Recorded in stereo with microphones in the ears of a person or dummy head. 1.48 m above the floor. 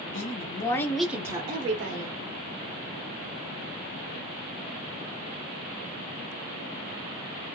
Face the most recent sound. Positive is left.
turn(degrees=-50)  # may be behind; listen again after turning